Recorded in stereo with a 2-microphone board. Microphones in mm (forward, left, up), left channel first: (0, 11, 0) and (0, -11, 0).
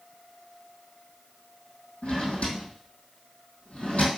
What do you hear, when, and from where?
2.0 s a drawer: 70° left (ahead or behind), 2.5 m